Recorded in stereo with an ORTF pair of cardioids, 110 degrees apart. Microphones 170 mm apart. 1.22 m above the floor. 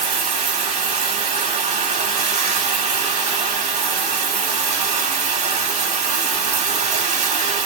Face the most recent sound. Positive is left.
turn(degrees=-45)